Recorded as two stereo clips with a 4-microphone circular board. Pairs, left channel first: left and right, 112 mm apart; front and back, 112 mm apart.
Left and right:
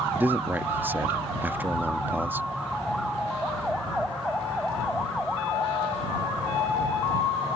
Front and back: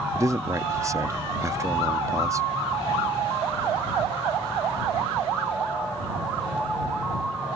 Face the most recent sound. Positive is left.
turn(degrees=-150)